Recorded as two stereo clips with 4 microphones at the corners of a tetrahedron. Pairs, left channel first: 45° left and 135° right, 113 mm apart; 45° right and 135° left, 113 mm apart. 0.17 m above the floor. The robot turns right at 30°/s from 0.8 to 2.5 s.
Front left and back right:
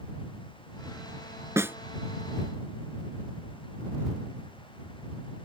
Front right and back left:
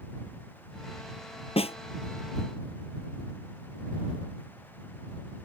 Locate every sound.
1.6 s a snare drum: 70° right; by 1.8 s 65° right